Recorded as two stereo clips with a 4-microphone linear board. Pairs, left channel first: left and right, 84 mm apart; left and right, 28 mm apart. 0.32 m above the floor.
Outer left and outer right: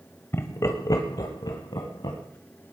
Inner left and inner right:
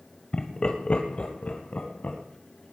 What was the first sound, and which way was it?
Laughter, 30° left (ahead or behind).